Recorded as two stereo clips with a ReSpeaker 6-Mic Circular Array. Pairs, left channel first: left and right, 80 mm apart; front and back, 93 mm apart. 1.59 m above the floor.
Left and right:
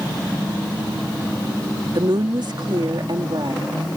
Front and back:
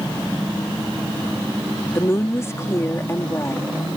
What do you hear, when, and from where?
1.9 s a woman speaking: 65° right